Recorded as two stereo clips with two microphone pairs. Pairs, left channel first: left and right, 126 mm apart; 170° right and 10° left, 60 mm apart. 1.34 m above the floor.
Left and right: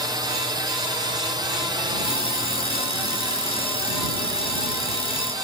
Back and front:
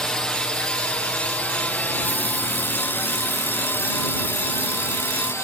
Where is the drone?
100° right; by 5.4 s 140° right.